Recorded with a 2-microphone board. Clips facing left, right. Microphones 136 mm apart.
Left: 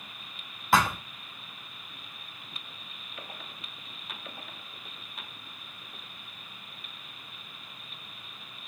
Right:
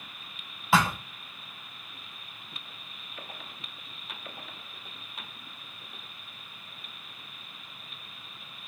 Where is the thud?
5° right (ahead or behind), 0.6 m.